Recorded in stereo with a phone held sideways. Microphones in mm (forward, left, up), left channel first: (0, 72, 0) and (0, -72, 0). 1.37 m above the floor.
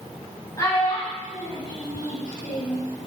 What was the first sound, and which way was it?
A child speaking, 25° left (ahead or behind).